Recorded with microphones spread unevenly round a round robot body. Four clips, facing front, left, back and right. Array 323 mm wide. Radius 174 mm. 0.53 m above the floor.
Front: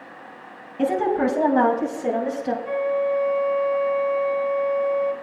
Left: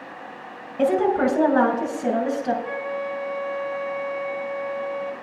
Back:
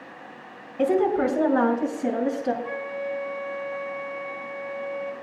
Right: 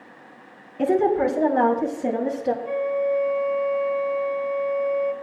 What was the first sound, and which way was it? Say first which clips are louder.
A woman speaking: even, even; 100° left.